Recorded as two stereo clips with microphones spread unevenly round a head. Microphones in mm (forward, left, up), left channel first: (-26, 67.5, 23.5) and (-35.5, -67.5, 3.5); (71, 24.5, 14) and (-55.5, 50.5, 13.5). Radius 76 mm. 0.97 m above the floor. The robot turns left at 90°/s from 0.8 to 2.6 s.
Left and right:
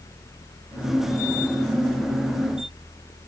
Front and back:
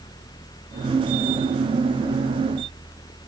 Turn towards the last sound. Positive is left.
No sound to turn to.